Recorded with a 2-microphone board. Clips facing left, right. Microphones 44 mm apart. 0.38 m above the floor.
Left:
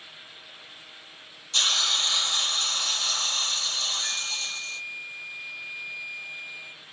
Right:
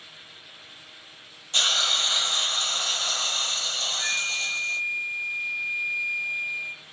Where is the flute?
65° right (ahead or behind), 0.7 m.